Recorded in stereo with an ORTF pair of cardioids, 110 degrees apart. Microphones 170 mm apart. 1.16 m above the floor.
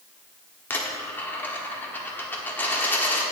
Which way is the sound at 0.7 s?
15° left.